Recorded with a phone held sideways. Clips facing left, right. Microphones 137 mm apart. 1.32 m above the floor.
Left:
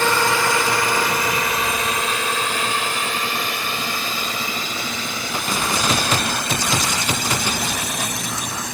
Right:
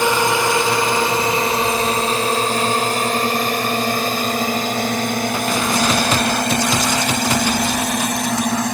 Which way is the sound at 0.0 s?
15° right (ahead or behind).